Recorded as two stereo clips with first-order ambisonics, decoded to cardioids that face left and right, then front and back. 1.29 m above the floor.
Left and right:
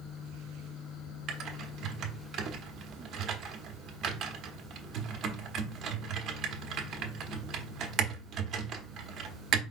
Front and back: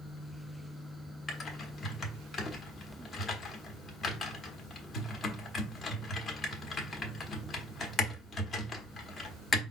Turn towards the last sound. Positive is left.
turn(degrees=-60)